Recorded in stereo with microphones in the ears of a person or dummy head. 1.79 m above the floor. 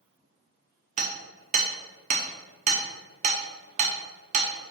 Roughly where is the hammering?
Right.